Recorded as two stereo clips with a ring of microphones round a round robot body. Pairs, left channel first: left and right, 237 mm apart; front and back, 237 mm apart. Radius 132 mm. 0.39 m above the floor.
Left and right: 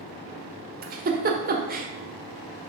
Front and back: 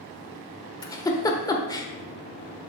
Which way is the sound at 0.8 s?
65° right.